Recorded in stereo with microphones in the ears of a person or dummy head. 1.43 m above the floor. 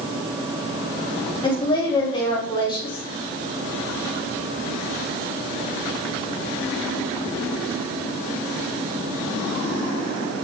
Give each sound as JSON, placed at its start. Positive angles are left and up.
{"t": 1.4, "sound": "a woman speaking", "side_deg": 25, "distance_m": 3.0}